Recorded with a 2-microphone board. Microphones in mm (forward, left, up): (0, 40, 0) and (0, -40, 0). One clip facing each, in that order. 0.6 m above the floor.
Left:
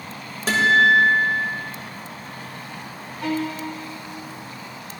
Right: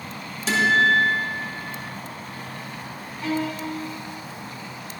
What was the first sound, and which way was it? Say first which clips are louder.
A guitar: left 3 dB; 50° left (ahead or behind).